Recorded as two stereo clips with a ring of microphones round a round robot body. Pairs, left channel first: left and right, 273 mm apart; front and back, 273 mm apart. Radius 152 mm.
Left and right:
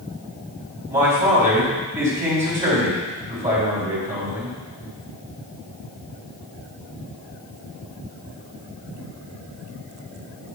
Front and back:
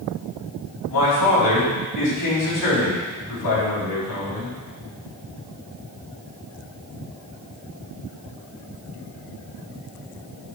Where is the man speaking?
30° right, 4 m.